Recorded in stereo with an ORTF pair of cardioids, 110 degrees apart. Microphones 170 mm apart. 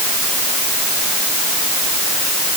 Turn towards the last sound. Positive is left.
No sound to turn to.